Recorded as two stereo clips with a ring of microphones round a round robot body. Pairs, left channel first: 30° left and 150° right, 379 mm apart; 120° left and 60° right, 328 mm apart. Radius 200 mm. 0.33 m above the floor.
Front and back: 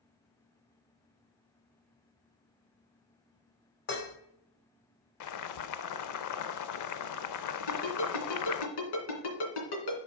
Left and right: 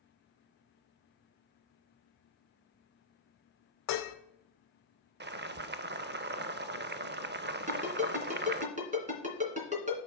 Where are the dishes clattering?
90° left, 1.3 m.